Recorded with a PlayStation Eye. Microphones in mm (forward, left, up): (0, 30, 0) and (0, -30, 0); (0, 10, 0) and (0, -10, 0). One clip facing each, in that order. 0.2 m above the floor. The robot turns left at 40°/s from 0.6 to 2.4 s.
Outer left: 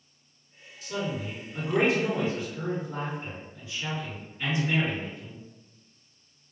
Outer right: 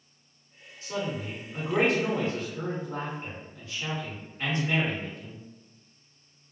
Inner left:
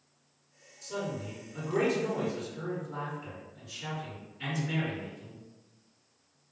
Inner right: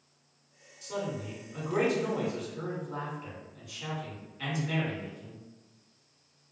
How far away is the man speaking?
About 1.9 m.